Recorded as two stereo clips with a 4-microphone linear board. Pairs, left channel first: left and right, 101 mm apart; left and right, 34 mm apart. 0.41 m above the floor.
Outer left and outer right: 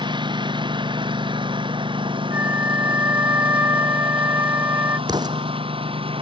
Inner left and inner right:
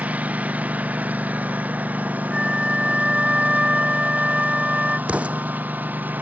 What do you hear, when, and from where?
0.0 s a lawn mower: 50° right (ahead or behind); by 6.2 s 60° right (ahead or behind)
2.3 s a flute: 20° right (ahead or behind)
5.1 s an explosion: 45° right (ahead or behind)